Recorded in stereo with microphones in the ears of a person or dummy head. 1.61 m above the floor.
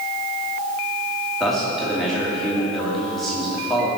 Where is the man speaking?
Centre (ahead or behind), 2.5 m.